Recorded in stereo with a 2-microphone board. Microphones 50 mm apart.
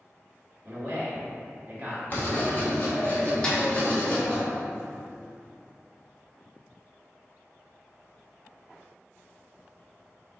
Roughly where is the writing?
Left.